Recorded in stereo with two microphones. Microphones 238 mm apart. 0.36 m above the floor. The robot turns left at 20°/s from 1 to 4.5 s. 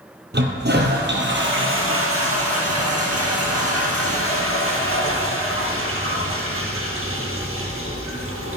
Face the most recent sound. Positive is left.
turn(degrees=-115)